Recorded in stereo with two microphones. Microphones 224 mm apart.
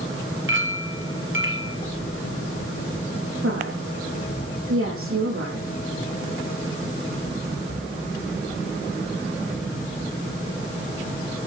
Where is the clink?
60° right (ahead or behind), 3.5 m.